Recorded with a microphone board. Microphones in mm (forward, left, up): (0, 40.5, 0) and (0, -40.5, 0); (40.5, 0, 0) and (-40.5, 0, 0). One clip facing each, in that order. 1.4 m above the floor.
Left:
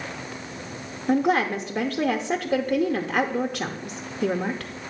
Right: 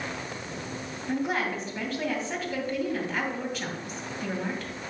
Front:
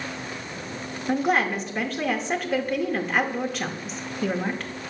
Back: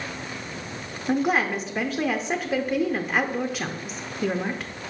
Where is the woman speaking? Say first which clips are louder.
Left 8 dB, even; 100° left, 0.6 m.